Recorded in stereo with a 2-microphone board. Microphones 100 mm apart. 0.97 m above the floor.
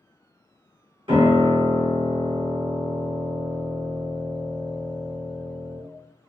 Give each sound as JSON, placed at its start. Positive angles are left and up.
{"t": 1.1, "sound": "a piano", "side_deg": -55, "distance_m": 0.8}